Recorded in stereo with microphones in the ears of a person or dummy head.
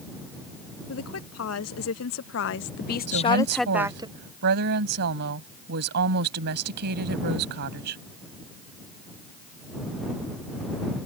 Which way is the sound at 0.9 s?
80° left.